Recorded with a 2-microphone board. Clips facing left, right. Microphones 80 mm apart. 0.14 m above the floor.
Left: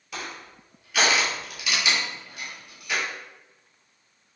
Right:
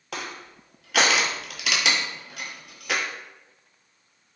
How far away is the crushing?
About 0.6 m.